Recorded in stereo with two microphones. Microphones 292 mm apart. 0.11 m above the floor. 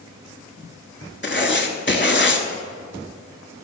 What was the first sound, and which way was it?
Writing, 40° left (ahead or behind).